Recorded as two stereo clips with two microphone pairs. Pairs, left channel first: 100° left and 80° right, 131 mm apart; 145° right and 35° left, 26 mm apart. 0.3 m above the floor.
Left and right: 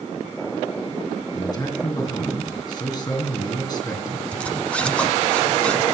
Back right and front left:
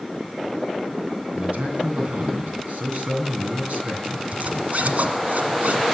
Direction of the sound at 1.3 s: 45° left.